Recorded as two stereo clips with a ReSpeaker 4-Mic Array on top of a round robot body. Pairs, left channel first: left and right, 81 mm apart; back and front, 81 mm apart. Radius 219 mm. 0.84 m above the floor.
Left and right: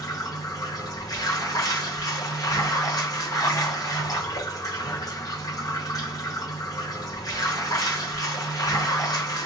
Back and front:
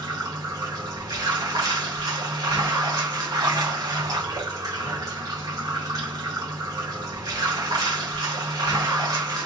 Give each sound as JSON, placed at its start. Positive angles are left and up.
{"t": 0.0, "sound": "running water", "azimuth_deg": 45, "distance_m": 1.2}